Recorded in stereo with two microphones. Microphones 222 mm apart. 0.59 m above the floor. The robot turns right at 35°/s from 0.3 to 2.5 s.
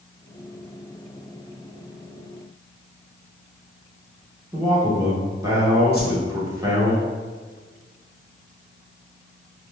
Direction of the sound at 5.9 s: 40° left (ahead or behind).